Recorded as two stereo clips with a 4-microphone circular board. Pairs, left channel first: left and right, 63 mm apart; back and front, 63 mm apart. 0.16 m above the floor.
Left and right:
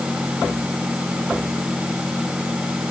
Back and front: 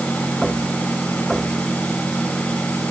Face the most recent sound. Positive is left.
No sound to turn to.